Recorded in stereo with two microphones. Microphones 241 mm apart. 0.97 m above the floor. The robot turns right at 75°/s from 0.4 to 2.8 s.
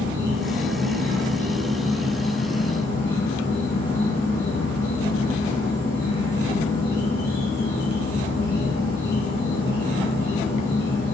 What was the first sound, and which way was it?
An insect, 125° right.